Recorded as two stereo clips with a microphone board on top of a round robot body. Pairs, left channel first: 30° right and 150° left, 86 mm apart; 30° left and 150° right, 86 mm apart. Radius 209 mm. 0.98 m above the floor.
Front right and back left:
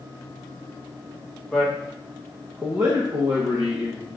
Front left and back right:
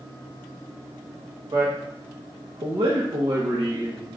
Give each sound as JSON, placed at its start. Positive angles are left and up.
{"t": 1.5, "sound": "a man speaking", "azimuth_deg": -120, "distance_m": 1.3}